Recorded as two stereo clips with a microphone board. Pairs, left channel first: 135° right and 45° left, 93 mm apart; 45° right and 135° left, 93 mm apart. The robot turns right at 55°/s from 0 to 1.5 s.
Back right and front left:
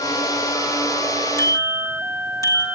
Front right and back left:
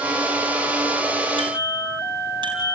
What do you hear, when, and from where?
1.4 s a bicycle bell: 165° left, 4 m; by 2.7 s 170° left, 4 m